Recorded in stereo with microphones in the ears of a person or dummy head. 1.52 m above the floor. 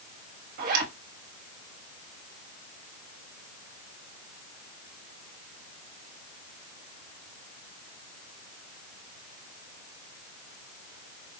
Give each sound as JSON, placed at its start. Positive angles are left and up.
{"t": 0.6, "sound": "a zipper", "side_deg": -55, "distance_m": 1.6}